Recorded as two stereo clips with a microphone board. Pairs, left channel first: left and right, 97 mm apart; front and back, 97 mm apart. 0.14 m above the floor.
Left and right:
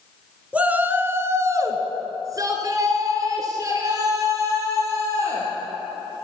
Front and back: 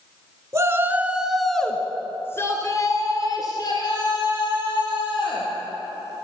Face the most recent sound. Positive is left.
turn(degrees=-35)